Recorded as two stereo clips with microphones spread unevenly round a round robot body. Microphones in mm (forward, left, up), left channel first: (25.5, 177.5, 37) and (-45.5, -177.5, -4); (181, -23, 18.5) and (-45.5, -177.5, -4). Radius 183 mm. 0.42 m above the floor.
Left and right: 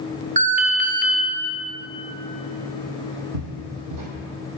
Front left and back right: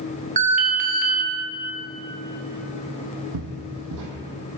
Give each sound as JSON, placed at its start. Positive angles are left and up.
{"t": 0.4, "sound": "an alarm", "azimuth_deg": -135, "distance_m": 0.9}
{"t": 3.3, "sound": "footsteps", "azimuth_deg": -140, "distance_m": 1.2}